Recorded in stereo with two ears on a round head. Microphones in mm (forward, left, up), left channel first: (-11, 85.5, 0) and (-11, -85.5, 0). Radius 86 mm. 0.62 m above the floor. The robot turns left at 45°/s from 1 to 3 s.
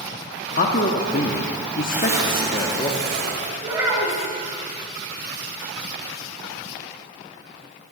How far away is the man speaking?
About 0.7 m.